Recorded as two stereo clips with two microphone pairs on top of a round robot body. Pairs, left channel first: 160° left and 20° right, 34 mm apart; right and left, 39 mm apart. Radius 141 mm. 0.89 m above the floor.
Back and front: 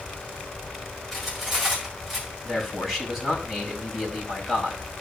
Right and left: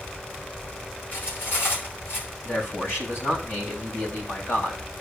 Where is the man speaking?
105° right, 5.5 m.